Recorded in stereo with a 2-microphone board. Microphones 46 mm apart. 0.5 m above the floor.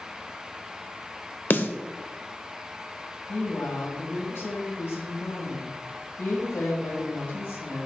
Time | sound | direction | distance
1.5 | a snare drum | 45° left (ahead or behind) | 0.7 m
3.3 | a woman speaking | 65° left (ahead or behind) | 2.5 m